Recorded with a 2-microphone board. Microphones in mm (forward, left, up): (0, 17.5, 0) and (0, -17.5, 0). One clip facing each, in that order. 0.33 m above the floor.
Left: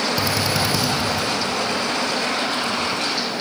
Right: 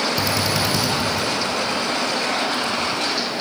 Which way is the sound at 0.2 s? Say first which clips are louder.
Even; centre (ahead or behind).